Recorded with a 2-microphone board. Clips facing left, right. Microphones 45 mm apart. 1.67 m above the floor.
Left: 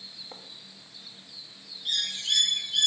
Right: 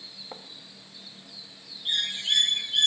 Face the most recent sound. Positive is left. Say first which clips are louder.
# right 2 dB
turn(degrees=-25)  # may be behind; listen again after turning